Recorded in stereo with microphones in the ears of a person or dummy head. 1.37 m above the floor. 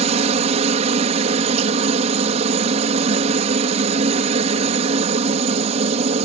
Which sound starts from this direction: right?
A helicopter, at 0.0 s.